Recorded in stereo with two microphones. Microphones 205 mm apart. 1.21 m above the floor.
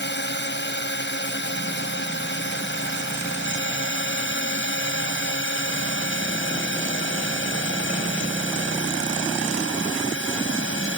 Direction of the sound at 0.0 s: 60° left (ahead or behind).